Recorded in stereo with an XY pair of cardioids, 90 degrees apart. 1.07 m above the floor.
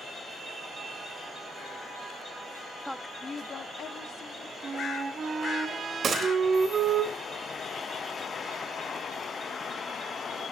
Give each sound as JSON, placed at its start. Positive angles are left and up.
{"t": 2.8, "sound": "a woman speaking", "azimuth_deg": 0, "distance_m": 0.7}
{"t": 4.6, "sound": "a flute", "azimuth_deg": -55, "distance_m": 2.5}
{"t": 6.0, "sound": "a gunshot", "azimuth_deg": -60, "distance_m": 3.5}